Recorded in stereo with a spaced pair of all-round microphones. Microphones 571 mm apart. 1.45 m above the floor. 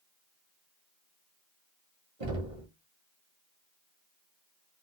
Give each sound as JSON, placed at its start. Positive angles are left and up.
{"t": 2.2, "sound": "knocking", "side_deg": -65, "distance_m": 1.6}